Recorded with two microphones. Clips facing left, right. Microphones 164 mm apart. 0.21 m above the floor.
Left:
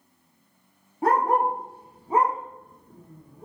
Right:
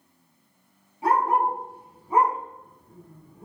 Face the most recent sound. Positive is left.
turn(degrees=15)  # may be behind; listen again after turning